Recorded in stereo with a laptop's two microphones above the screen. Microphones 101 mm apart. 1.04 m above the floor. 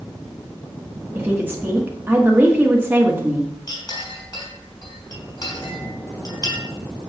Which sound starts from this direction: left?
A clink, at 3.7 s.